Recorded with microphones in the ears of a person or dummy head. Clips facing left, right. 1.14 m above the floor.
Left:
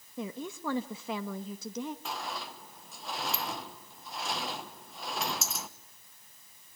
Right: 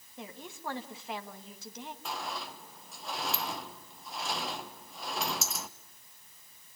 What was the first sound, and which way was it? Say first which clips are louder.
A woman speaking: left 7 dB; 70° left (ahead or behind).